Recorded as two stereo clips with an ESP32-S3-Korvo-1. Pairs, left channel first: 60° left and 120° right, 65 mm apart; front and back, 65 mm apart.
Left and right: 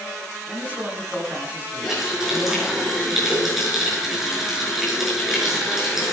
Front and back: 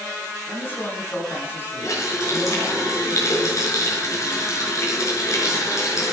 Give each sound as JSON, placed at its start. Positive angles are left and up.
{"t": 0.5, "sound": "a man speaking", "azimuth_deg": -55, "distance_m": 6.0}
{"t": 1.8, "sound": "a running tap", "azimuth_deg": -35, "distance_m": 6.5}